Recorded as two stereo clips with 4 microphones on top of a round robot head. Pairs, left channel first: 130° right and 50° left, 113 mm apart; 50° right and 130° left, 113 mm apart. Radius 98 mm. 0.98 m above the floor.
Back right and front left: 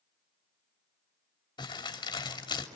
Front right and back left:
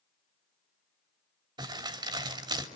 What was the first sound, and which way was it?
Crumpling, straight behind.